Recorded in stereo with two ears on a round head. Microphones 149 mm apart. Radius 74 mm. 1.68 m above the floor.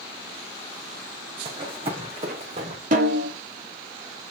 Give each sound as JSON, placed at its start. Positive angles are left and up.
{"t": 1.4, "sound": "running footsteps", "side_deg": -30, "distance_m": 4.0}
{"t": 2.9, "sound": "a snare drum", "side_deg": -50, "distance_m": 3.5}